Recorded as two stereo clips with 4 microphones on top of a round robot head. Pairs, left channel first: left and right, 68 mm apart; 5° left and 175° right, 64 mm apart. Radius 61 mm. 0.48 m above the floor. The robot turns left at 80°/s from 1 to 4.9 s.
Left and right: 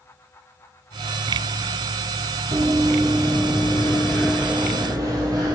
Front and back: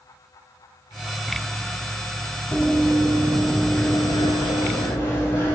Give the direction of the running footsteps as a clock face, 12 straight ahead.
3 o'clock.